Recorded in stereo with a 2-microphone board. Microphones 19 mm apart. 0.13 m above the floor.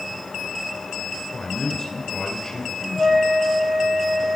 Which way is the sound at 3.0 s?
85° right.